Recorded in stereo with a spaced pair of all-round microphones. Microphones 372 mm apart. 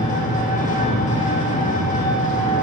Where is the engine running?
20° left (ahead or behind), 2.5 m.